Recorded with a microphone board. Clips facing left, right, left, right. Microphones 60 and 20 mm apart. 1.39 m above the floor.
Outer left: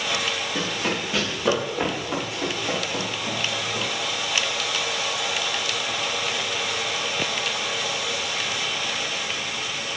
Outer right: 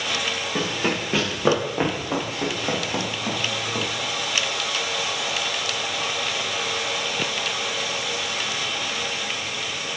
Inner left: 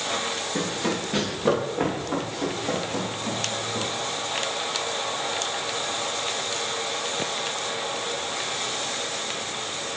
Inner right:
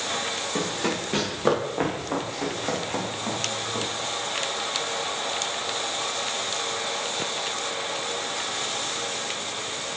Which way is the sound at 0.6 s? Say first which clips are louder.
Outer right 4 dB, even; 35° right (ahead or behind).